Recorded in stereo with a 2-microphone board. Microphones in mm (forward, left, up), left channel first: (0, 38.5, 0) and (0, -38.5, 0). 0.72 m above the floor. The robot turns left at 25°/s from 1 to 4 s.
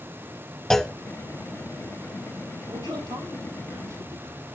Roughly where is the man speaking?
Right.